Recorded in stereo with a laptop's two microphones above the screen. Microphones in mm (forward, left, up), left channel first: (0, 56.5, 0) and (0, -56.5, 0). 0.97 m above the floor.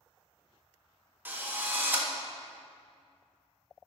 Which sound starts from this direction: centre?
A drill, at 1.2 s.